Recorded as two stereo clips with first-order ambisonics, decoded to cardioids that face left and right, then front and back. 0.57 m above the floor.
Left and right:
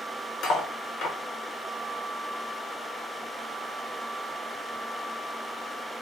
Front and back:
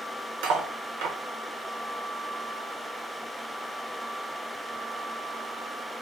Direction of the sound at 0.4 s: 150° left.